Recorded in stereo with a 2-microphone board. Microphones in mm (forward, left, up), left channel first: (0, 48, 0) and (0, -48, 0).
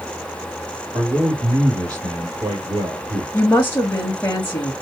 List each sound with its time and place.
0.9 s a man speaking: 40° right (ahead or behind), 3 m
3.3 s a woman speaking: 25° left (ahead or behind), 1.0 m